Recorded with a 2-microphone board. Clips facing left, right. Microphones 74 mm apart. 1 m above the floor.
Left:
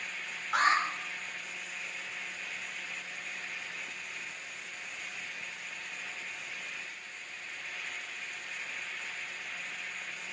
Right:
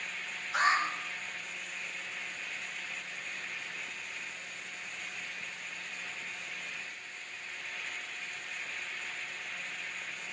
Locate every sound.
0.5 s an alarm: 65° left (ahead or behind), 4 m